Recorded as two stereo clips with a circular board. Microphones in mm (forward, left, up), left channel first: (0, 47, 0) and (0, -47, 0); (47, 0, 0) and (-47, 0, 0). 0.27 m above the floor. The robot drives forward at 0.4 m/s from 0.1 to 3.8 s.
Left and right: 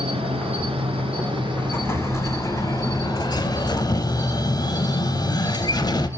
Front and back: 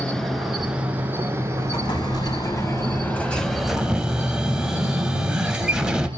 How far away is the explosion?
About 1.0 m.